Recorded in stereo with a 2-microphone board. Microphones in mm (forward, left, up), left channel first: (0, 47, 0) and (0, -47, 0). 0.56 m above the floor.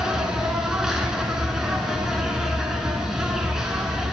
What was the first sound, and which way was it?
An insect, 5° right (ahead or behind).